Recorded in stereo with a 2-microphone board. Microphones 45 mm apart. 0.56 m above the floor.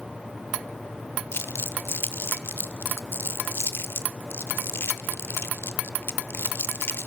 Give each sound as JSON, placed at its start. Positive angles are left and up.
{"t": 1.3, "sound": "crumpling", "side_deg": 60, "distance_m": 0.7}